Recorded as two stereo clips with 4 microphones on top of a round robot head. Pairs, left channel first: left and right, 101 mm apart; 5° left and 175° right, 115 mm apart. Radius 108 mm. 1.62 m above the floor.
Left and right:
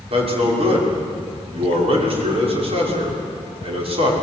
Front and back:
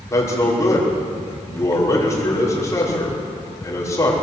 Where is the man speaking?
65° right, 6 m.